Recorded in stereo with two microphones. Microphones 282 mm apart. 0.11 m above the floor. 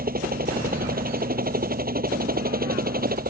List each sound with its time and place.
0.0 s a helicopter: 35° right (ahead or behind)